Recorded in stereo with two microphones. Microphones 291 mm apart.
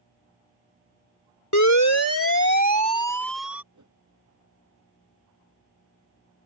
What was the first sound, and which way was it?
A siren, 75° left (ahead or behind).